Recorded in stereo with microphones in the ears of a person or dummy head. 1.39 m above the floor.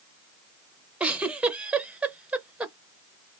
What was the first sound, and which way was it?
A giggle, 10° right (ahead or behind).